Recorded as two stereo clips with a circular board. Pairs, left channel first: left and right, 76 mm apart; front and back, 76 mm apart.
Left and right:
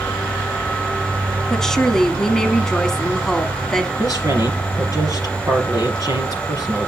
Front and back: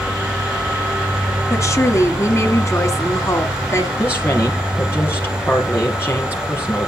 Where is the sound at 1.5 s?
10° left, 1.7 m.